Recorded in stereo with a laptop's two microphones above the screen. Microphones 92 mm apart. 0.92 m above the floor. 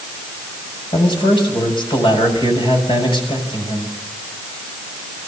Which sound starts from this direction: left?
A man speaking, at 0.9 s.